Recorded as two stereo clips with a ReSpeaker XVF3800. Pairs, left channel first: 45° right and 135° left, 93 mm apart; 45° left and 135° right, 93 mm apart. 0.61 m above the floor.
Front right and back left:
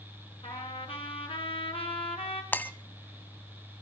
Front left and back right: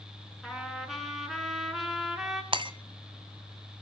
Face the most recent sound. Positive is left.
turn(degrees=-115)